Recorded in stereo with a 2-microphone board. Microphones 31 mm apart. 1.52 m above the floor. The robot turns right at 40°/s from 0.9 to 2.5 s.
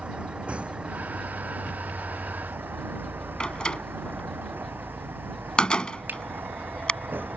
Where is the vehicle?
145° right; by 7.4 s 80° right.